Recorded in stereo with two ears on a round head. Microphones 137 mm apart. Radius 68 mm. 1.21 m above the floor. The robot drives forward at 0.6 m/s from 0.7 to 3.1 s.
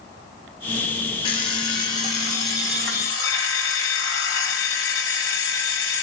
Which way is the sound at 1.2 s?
35° left (ahead or behind).